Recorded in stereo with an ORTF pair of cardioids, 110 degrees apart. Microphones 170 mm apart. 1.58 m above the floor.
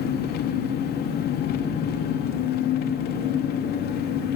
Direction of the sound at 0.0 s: 65° left.